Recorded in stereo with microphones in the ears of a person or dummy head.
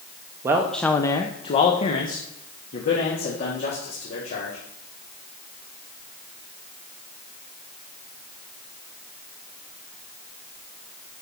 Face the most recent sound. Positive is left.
turn(degrees=60)  # may be behind; listen again after turning